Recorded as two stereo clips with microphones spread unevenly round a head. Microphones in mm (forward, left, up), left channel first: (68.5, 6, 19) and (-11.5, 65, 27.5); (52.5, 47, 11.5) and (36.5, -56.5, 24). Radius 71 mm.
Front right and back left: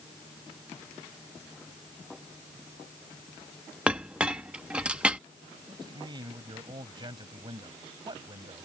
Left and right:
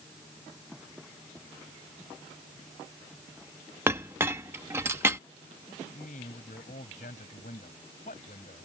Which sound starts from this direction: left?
A man speaking, at 5.7 s.